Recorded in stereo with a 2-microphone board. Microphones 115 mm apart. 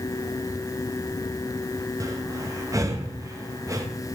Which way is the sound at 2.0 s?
30° right (ahead or behind).